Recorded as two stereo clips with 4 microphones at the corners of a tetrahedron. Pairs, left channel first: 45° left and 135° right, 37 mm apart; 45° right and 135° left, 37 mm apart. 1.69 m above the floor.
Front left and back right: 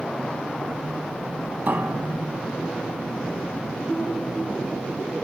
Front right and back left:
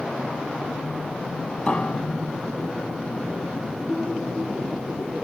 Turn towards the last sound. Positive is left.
turn(degrees=-105)